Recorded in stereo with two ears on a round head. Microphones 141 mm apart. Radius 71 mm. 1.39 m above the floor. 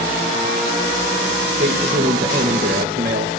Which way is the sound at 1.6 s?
60° right (ahead or behind).